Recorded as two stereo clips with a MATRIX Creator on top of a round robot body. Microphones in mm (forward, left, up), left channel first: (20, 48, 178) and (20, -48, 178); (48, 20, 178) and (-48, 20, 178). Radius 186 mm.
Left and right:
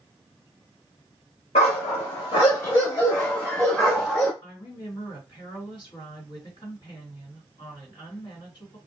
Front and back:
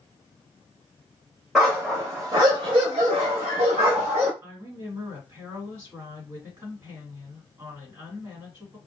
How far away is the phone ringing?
I don't hear a phone ringing.